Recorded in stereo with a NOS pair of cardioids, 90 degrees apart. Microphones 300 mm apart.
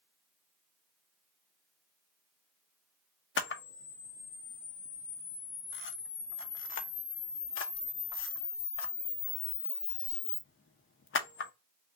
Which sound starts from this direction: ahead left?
A camera shutter, at 3.4 s.